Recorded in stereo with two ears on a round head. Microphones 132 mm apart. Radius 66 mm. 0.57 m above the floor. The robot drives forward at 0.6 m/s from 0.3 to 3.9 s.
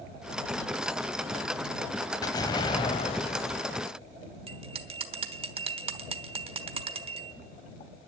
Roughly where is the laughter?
No laughter in this recording.